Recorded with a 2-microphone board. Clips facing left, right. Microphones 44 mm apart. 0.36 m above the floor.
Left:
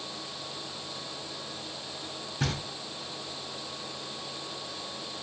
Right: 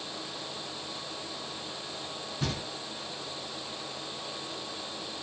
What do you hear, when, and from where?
2.4 s knocking: 65° left (ahead or behind), 1.6 m